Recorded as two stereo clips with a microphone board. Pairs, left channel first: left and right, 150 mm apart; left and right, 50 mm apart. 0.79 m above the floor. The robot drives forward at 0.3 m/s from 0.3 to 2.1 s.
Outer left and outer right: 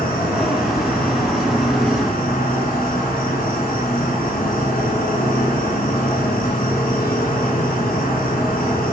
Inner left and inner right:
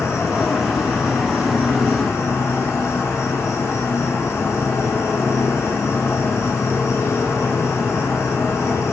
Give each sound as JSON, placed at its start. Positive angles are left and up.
{"t": 0.0, "sound": "an insect", "side_deg": 85, "distance_m": 7.5}